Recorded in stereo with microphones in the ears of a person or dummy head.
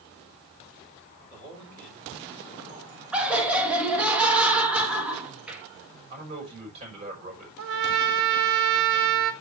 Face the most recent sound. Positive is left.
turn(degrees=-70)  # may be behind; listen again after turning